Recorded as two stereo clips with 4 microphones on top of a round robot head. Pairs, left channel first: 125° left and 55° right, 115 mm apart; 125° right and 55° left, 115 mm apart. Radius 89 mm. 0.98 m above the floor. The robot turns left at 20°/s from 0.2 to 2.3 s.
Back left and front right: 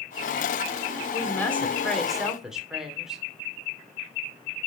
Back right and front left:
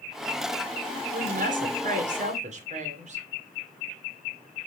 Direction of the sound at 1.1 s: 55° left.